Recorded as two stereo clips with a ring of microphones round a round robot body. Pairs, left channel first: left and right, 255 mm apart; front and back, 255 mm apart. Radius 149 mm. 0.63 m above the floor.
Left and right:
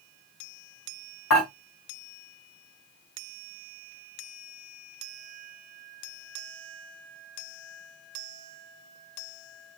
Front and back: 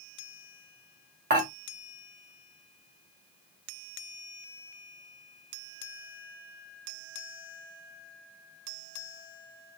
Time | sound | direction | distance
1.3 | dishes clattering | 125° left | 1.7 m